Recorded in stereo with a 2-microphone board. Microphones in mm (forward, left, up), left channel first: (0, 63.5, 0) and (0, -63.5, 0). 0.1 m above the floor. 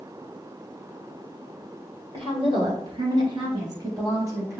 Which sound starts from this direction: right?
A woman speaking, at 2.1 s.